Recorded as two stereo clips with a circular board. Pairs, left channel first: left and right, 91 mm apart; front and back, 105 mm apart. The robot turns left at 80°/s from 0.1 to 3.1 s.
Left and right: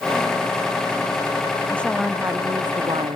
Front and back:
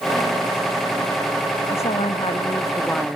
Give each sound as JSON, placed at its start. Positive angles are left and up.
{"t": 1.7, "sound": "a woman speaking", "azimuth_deg": 20}